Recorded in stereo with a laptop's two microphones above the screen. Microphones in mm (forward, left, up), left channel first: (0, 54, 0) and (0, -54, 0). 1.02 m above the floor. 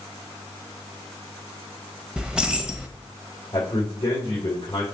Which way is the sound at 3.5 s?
40° left (ahead or behind).